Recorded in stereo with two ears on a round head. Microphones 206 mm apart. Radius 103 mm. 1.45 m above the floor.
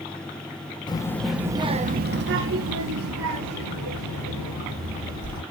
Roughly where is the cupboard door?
I don't hear a cupboard door.